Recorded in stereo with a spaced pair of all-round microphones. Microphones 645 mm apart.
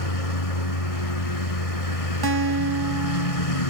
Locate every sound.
0.0 s a lawn mower: 60° left (ahead or behind)
2.2 s a guitar: 35° right (ahead or behind)